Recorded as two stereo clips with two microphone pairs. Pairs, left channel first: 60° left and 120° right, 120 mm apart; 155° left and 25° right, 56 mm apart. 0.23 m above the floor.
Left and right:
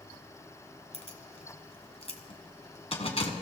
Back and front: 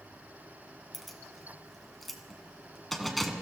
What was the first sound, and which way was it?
Keys jangling, 70° left.